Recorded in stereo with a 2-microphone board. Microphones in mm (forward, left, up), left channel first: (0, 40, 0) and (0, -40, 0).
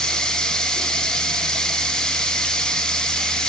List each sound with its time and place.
0.0 s running water: 10° left (ahead or behind), 0.9 m